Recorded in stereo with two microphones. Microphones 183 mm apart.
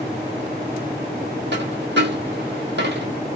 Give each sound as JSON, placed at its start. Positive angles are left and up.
{"t": 1.5, "sound": "a dropped coin", "side_deg": -75, "distance_m": 1.0}